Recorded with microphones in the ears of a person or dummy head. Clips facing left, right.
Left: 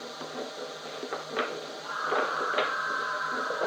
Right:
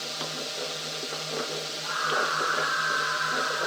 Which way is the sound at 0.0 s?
40° right (ahead or behind).